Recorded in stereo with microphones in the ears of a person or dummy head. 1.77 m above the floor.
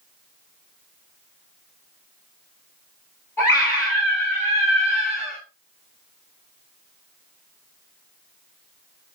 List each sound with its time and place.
3.4 s a scream: 20° left (ahead or behind), 7 m